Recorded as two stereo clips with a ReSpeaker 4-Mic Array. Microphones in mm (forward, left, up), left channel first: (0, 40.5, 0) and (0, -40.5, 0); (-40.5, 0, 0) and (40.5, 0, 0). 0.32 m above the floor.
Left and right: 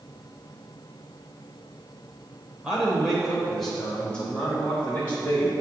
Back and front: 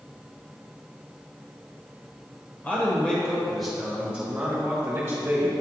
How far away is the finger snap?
No finger snap in this recording.